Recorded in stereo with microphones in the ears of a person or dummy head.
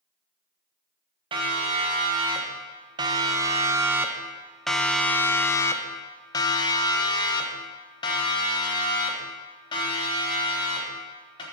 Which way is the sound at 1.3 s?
25° right (ahead or behind).